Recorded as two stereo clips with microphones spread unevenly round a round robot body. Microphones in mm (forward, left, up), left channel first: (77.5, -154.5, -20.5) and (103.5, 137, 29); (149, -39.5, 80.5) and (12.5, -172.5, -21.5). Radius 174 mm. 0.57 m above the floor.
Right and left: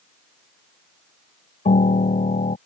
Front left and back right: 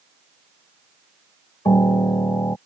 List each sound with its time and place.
1.6 s a piano: 25° right